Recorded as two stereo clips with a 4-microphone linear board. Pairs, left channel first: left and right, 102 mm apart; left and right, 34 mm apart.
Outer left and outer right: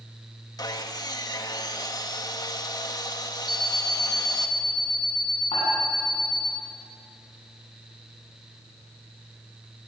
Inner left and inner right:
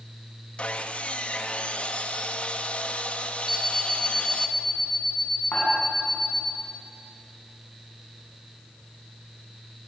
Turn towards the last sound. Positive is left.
turn(degrees=70)  # may be behind; listen again after turning